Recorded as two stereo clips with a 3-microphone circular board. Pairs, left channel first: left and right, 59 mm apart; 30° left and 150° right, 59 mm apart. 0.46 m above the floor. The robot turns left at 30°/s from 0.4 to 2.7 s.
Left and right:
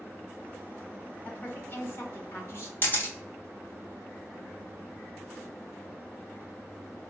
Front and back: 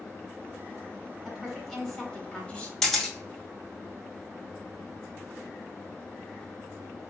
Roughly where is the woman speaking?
Behind left.